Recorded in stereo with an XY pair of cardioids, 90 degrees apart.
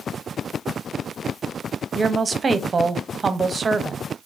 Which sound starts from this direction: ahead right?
A woman speaking, at 1.9 s.